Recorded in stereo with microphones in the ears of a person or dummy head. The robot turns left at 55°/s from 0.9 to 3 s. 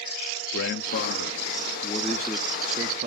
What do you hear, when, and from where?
0.5 s a man speaking: 80° left, 0.6 m; by 3.1 s 35° right, 0.6 m